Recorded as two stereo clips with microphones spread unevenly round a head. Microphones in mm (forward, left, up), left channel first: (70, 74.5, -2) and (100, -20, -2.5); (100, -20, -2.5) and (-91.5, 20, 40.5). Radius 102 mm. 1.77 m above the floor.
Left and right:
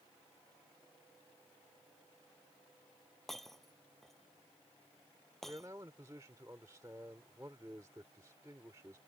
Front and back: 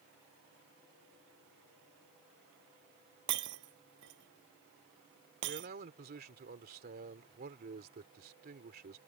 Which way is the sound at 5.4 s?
150° right.